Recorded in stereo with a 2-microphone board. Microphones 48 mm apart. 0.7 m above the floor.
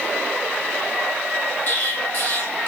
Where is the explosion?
40° left (ahead or behind), 3.5 m.